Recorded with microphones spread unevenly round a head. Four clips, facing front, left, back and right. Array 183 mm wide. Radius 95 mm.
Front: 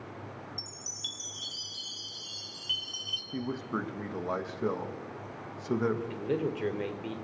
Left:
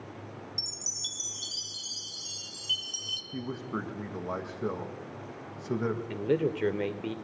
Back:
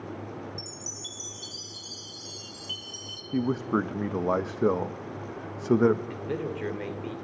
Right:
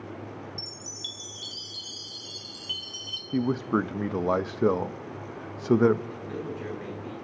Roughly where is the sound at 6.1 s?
Left.